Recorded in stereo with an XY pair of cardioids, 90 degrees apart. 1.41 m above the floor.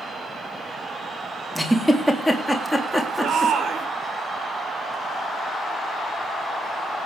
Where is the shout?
65° right, 5 m.